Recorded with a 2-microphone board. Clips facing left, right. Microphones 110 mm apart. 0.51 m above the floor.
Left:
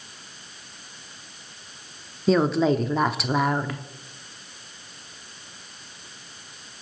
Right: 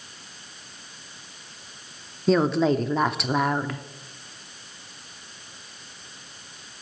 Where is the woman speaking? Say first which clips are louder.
Even; centre (ahead or behind), 0.7 m.